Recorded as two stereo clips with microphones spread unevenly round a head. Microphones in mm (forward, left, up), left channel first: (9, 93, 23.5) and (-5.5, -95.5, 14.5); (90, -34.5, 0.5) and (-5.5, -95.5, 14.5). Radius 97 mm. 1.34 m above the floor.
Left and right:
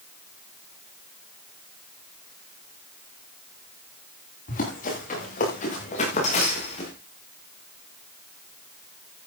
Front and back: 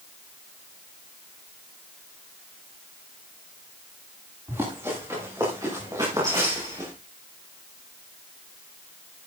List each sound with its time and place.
4.5 s running footsteps: 135° left, 9 m; by 6.9 s 145° left, 6 m